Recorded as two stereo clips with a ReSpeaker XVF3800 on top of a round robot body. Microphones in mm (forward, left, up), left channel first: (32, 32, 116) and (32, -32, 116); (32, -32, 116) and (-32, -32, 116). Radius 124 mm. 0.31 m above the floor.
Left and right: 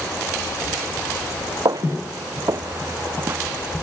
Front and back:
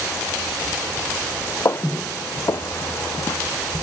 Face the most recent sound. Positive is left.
turn(degrees=-35)